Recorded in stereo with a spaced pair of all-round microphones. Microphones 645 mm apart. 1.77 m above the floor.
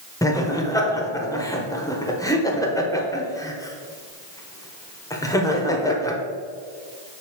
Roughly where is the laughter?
Centre.